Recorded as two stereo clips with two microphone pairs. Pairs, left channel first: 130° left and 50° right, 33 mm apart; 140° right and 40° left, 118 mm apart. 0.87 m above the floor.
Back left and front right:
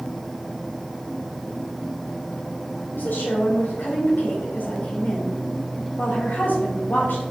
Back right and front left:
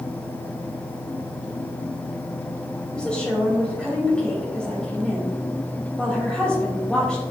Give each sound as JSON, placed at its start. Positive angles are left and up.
{"t": 2.9, "sound": "a woman speaking", "azimuth_deg": 140, "distance_m": 3.5}